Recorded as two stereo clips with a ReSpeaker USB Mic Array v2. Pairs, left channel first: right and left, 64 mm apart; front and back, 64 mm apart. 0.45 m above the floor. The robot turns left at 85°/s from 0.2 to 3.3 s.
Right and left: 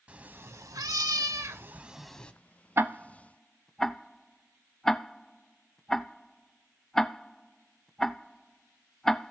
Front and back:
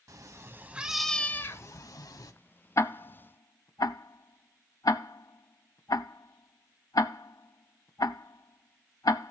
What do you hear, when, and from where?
0.1 s a cat meowing: 155° left, 0.5 m; by 2.3 s 25° right, 0.5 m
2.8 s ticking: 40° left, 0.5 m; by 9.3 s 5° right, 0.5 m